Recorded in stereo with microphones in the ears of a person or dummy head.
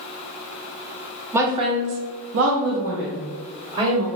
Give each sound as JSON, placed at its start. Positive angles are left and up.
{"t": 1.3, "sound": "a woman speaking", "side_deg": -10, "distance_m": 0.6}